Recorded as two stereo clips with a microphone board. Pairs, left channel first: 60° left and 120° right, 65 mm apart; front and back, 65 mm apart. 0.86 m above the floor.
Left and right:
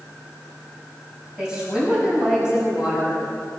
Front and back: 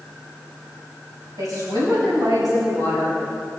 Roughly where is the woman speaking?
Behind.